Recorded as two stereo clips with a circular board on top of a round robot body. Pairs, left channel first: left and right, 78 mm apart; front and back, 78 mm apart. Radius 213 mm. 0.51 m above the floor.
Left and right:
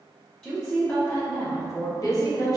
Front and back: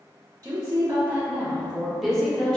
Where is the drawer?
I don't hear a drawer.